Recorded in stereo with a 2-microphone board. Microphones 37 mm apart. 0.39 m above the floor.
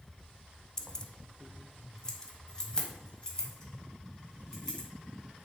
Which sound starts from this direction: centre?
Keys jangling, at 0.8 s.